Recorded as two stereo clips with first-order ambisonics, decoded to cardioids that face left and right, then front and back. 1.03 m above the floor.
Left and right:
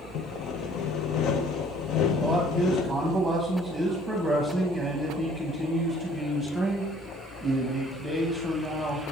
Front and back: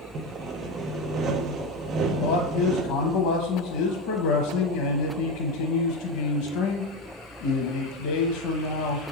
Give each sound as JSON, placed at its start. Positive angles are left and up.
{"t": 0.1, "sound": "sawing", "azimuth_deg": 130, "distance_m": 0.5}
{"t": 2.2, "sound": "a man speaking", "azimuth_deg": -10, "distance_m": 1.1}